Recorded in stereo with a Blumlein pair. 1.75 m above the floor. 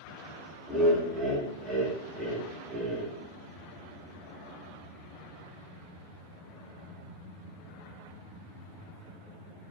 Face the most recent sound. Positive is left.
turn(degrees=10)